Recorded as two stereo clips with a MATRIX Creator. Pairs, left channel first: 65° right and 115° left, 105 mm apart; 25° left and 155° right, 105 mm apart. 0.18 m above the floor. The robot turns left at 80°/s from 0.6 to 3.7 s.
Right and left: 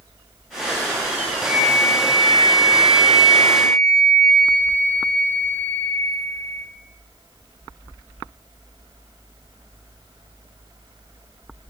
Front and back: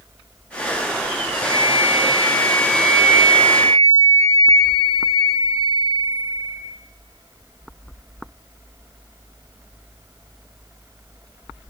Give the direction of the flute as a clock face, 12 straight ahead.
11 o'clock.